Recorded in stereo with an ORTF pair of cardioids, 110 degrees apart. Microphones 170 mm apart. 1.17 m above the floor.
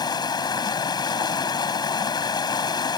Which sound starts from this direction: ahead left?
Running water, at 0.0 s.